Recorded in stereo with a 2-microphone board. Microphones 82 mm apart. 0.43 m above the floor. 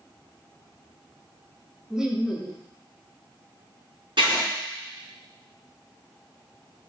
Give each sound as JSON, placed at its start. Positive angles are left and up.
{"t": 1.9, "sound": "laughter", "side_deg": -5, "distance_m": 1.0}
{"t": 4.2, "sound": "writing", "side_deg": -70, "distance_m": 3.5}